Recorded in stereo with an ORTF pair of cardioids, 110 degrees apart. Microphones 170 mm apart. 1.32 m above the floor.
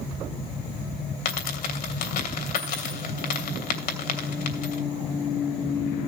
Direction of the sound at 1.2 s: 65° left.